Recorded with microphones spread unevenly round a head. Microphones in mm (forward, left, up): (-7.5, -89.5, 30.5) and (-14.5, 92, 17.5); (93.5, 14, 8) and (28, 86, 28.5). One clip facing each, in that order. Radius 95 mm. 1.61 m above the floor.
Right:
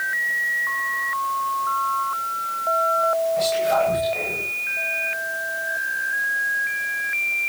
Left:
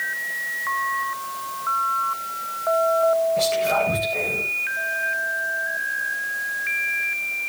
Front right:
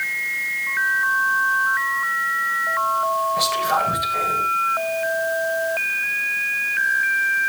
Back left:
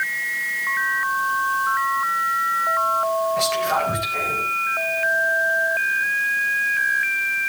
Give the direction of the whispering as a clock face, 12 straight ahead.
11 o'clock.